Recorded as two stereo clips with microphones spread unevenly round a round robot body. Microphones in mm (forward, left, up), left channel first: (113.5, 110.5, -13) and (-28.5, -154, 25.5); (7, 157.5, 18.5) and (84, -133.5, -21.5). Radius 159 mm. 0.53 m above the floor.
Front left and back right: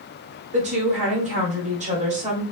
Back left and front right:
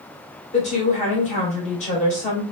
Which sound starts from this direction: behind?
A woman speaking, at 0.5 s.